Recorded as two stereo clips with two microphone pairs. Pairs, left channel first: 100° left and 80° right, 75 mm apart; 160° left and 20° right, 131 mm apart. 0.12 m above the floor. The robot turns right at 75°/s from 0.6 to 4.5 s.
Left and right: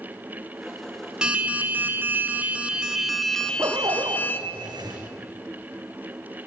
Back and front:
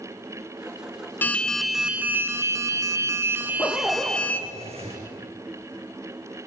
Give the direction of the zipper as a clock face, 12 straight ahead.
5 o'clock.